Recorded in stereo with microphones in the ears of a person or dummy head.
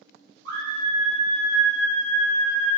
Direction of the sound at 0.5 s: 55° right (ahead or behind).